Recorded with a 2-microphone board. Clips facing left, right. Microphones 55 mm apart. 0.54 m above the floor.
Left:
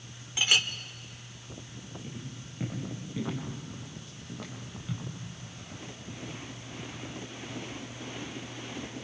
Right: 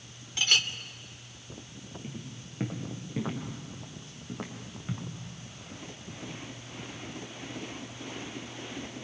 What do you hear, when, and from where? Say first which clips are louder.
0.4 s a clink: left 1 dB; 15° left (ahead or behind), 0.9 m
2.0 s footsteps: even; 30° right (ahead or behind), 5.5 m; by 5.1 s 25° right (ahead or behind), 3.5 m